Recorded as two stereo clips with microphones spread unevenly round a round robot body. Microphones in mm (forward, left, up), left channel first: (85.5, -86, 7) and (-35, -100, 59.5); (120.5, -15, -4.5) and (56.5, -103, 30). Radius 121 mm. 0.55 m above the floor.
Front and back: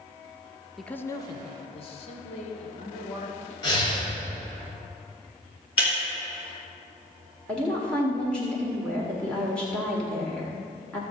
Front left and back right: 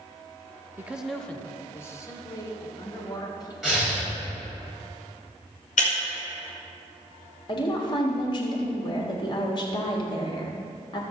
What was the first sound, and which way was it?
A man speaking, 40° right.